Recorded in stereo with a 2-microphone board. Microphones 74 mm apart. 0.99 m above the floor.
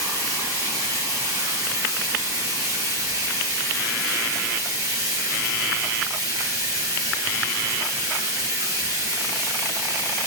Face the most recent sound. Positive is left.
turn(degrees=-50)  # may be behind; listen again after turning